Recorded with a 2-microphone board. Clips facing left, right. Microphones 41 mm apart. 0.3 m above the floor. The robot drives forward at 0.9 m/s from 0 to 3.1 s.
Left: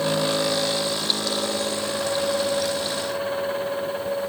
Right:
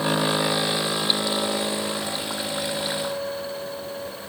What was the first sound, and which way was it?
Only background noise.